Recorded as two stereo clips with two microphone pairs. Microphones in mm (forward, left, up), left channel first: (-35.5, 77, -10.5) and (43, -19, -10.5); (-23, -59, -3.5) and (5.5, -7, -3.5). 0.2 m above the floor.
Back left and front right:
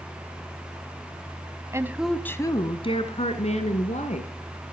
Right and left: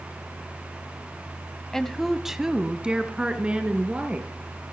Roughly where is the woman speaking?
Ahead right.